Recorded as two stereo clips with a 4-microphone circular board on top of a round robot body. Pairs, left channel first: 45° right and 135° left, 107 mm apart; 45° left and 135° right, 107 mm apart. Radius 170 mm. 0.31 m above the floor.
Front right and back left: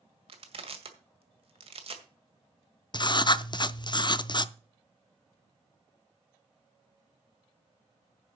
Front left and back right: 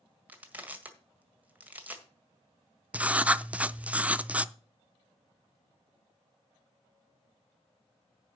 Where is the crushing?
150° left, 1.9 m.